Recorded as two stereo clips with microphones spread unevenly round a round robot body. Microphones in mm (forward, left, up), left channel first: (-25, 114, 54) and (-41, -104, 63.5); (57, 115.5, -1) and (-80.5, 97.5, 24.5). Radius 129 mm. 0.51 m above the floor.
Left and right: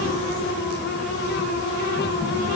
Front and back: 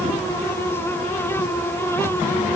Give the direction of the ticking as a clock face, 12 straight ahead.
I don't hear ticking.